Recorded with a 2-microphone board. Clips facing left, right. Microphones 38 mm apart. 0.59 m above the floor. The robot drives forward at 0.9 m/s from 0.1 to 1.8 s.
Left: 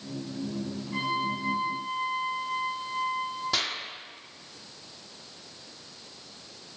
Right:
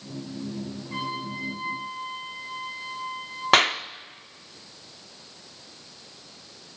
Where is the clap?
60° right (ahead or behind), 0.6 m.